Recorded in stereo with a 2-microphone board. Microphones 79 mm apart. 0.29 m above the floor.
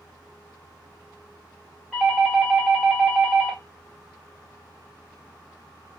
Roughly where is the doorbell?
Centre.